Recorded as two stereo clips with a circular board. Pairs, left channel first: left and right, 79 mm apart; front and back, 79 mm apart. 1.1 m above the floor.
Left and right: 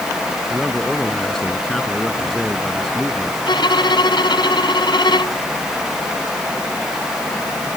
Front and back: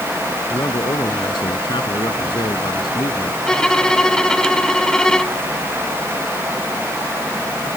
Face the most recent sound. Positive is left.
turn(degrees=80)